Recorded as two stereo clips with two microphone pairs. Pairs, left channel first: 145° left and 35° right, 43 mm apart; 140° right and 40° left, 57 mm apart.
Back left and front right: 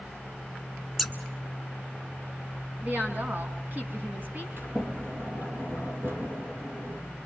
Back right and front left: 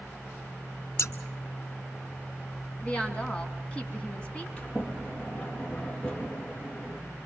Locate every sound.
1.0 s scissors: 125° right, 1.0 m
2.8 s a woman speaking: 75° right, 2.5 m
4.6 s a sliding door: 70° right, 3.5 m